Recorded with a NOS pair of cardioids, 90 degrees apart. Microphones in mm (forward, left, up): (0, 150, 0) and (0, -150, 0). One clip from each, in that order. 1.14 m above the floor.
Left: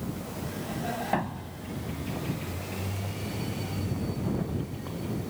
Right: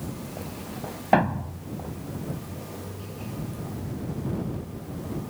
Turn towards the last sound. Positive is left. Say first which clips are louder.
# right 9 dB
turn(degrees=-55)